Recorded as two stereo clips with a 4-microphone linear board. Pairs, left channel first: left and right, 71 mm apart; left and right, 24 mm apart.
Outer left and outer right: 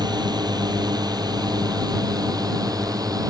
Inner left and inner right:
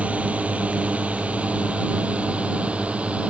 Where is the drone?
75° right (ahead or behind); by 3.3 s 60° right (ahead or behind).